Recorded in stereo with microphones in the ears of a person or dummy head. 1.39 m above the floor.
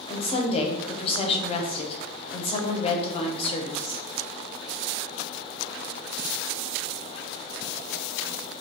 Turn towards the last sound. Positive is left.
turn(degrees=35)  # may be behind; listen again after turning